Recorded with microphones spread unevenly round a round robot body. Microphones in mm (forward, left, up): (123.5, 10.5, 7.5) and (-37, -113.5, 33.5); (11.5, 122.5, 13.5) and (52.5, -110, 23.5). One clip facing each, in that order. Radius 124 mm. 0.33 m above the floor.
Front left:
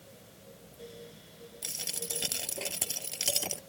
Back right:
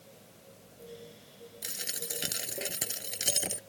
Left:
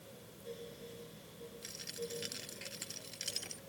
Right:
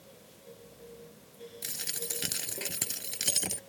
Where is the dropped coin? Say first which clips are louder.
Front left 1 dB, even; 65° right.